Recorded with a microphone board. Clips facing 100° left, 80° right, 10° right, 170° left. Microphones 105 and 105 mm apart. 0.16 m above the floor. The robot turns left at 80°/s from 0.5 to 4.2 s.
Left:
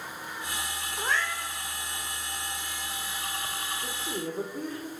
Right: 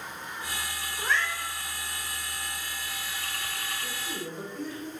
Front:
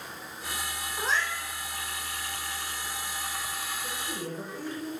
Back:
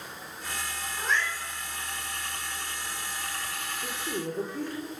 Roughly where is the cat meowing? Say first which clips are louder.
Right 1 dB, even; ahead left.